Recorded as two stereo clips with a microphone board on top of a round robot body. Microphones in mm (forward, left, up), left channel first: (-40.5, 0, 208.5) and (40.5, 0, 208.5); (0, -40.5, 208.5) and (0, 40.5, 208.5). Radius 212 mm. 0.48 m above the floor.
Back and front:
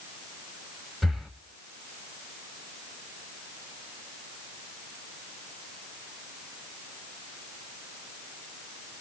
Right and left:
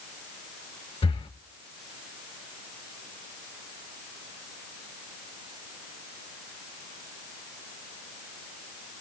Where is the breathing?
90° right, 0.5 m.